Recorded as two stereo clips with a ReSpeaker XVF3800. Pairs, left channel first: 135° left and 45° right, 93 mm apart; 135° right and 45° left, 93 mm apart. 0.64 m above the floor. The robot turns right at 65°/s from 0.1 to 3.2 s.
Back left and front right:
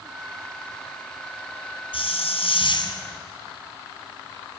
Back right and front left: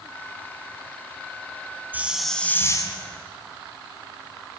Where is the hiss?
115° left, 3 m; by 2.9 s straight behind, 3 m.